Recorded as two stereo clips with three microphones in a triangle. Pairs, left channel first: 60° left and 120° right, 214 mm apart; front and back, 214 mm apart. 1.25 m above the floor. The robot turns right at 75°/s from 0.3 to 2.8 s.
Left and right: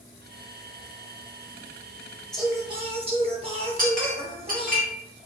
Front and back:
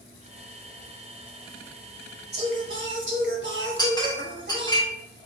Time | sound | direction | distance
2.3 | singing | 145° left | 1.0 m
3.8 | a clink | 70° right | 1.3 m